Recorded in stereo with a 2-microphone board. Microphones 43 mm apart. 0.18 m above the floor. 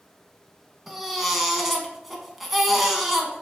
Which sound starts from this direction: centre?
A baby crying, at 0.9 s.